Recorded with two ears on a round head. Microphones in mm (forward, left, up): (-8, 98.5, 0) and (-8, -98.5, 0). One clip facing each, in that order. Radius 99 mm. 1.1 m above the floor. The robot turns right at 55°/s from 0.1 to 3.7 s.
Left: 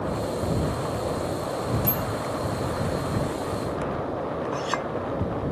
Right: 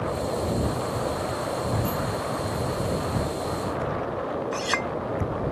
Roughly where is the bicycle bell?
Left.